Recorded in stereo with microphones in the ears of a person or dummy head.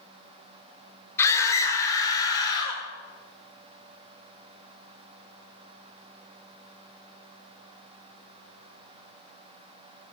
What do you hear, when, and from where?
1.2 s a scream: 15° left (ahead or behind), 5.5 m; by 2.8 s 25° left (ahead or behind), 7.5 m